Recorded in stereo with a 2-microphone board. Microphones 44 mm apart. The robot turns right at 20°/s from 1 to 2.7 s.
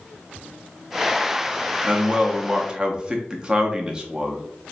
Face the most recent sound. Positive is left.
turn(degrees=-20)  # may be behind; listen again after turning